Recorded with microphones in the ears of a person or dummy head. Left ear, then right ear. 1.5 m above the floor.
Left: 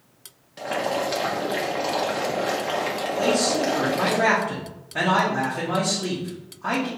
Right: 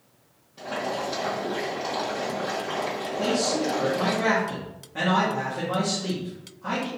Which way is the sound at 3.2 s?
20° left (ahead or behind).